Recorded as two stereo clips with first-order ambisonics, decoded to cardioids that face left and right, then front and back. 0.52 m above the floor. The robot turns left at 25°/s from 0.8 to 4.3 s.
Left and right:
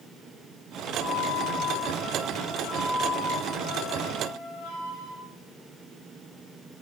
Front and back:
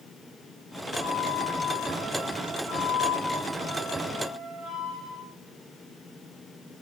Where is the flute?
145° left, 5 m; by 5.2 s 60° left, 5 m.